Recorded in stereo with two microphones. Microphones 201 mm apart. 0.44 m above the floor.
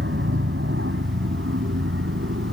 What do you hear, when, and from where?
0.0 s an aircraft: 65° right (ahead or behind); by 2.5 s 70° right (ahead or behind)